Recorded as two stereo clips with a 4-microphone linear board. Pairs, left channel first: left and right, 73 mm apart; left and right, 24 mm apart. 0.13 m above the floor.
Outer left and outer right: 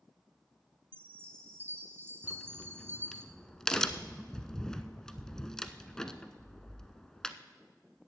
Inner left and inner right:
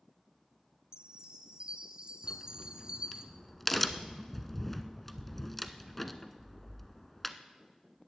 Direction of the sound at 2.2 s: 10° left (ahead or behind).